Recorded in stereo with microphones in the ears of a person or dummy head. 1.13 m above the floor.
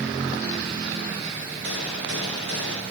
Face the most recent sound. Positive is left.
turn(degrees=-80)